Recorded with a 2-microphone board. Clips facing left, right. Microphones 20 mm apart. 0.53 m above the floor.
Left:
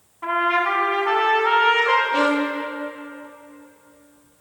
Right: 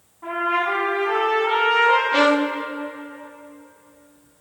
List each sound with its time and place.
0.2 s a trumpet: 75° left (ahead or behind), 3.5 m
2.1 s a violin: 40° right (ahead or behind), 0.5 m